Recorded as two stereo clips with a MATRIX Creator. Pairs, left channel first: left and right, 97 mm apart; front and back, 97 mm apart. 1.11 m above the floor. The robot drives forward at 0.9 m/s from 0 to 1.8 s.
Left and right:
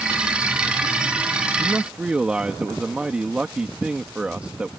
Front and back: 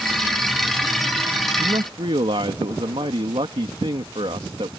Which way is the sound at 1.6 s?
165° right.